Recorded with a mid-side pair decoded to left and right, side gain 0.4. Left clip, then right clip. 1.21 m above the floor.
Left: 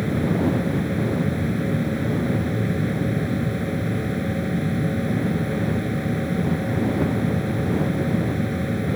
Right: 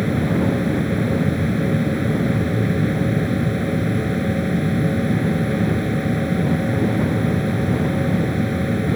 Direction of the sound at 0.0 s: 20° right.